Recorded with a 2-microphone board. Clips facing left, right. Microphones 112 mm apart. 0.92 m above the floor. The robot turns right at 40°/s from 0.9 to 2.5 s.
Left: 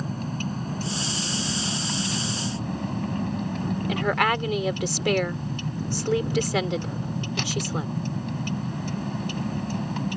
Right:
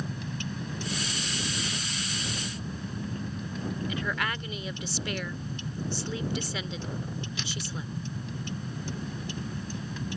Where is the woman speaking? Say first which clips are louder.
Left 13 dB; 75° left (ahead or behind).